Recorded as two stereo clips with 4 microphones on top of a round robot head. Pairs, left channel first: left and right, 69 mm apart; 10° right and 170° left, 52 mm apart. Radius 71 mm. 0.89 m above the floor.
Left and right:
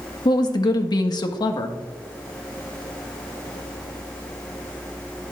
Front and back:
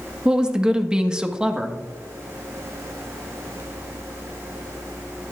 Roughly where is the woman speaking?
Left.